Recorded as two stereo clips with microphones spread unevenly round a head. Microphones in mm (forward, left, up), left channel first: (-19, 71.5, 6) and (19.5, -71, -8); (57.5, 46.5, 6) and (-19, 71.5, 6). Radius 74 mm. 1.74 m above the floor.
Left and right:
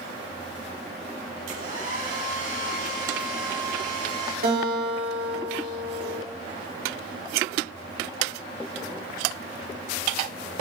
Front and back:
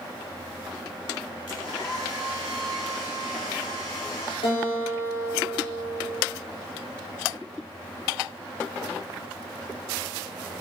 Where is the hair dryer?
65° right, 7 m.